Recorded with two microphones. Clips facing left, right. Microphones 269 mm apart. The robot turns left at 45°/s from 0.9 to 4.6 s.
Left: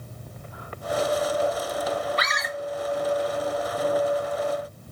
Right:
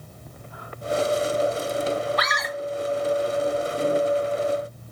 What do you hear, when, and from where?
2.2 s a scream: 30° left (ahead or behind), 1.7 m; by 2.5 s 20° left (ahead or behind), 1.7 m